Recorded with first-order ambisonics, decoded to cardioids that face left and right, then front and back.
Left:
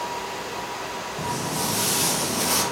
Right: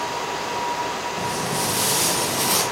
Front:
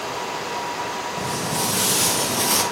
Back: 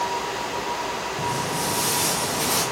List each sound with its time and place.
1.2 s footsteps: 15° right, 2.5 m; by 2.6 s 5° right, 1.5 m